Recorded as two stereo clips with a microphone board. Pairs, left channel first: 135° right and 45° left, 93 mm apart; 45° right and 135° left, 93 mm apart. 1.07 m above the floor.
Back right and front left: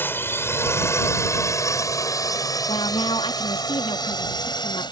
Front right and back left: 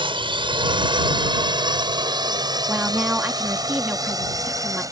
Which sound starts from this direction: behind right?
A woman speaking, at 2.7 s.